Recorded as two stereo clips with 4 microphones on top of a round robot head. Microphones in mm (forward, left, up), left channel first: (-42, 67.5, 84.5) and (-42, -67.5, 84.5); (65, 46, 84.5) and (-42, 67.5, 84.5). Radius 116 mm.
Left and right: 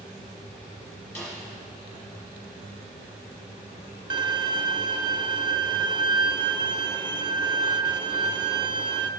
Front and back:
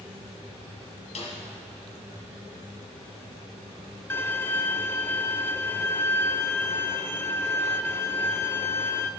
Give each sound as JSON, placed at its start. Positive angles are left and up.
{"t": 1.1, "sound": "a snare drum", "azimuth_deg": 15, "distance_m": 3.0}
{"t": 4.1, "sound": "a violin", "azimuth_deg": -65, "distance_m": 0.6}